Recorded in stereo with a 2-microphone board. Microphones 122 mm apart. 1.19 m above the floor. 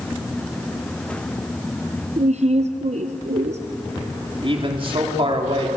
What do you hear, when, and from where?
2.2 s a woman speaking: 65° right (ahead or behind), 0.8 m
4.4 s a man speaking: 45° right (ahead or behind), 3 m